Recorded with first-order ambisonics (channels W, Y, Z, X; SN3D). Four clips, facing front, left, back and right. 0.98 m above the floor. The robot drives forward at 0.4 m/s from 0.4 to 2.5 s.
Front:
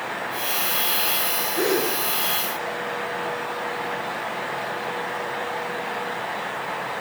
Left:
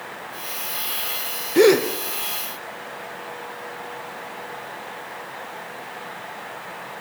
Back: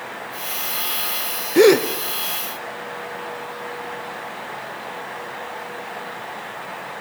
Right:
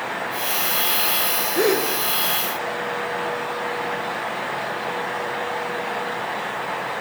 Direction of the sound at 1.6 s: 150° left.